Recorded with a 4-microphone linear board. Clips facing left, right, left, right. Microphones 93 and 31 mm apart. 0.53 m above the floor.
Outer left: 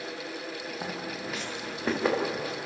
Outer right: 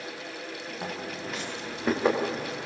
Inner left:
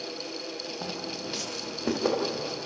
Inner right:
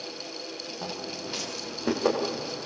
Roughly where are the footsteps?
Centre.